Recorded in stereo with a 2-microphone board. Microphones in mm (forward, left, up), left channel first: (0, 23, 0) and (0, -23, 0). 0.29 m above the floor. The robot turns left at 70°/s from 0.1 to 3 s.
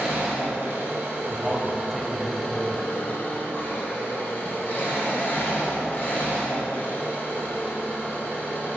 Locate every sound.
0.0 s an engine running: 25° right, 2.5 m; by 8.8 s 135° left, 2.5 m
1.3 s a man speaking: 10° right (ahead or behind), 0.9 m; by 2.8 s 20° left (ahead or behind), 0.9 m